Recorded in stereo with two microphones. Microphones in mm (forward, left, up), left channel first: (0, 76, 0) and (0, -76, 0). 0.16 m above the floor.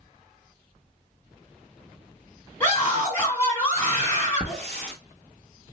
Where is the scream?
15° left (ahead or behind), 1.6 m.